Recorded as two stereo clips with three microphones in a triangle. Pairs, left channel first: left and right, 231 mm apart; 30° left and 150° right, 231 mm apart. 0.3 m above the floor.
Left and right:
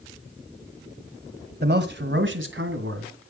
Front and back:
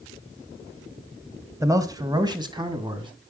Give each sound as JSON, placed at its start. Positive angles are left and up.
{"t": 1.6, "sound": "a man speaking", "azimuth_deg": -80, "distance_m": 1.6}